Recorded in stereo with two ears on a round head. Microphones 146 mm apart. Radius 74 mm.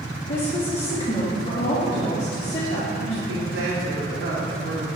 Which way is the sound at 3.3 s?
85° right.